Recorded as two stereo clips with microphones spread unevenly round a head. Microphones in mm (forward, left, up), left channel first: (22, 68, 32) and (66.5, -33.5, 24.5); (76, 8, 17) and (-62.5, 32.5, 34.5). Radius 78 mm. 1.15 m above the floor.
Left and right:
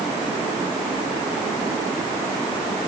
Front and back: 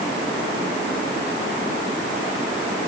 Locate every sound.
Only background noise.